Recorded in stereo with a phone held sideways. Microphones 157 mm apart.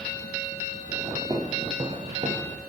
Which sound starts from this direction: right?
Footsteps, at 1.3 s.